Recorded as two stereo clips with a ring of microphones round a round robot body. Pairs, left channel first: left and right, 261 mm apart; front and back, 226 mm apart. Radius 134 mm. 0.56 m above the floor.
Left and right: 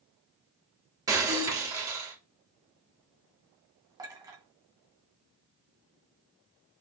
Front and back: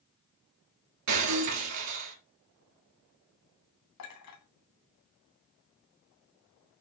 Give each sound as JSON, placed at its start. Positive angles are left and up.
{"t": 1.1, "sound": "breaking glass", "azimuth_deg": -170, "distance_m": 3.0}
{"t": 4.0, "sound": "a clink", "azimuth_deg": -15, "distance_m": 2.5}